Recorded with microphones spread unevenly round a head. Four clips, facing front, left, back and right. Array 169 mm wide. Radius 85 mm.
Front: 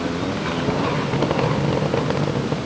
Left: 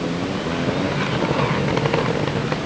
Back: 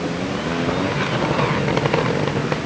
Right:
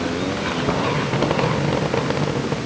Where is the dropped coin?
I don't hear a dropped coin.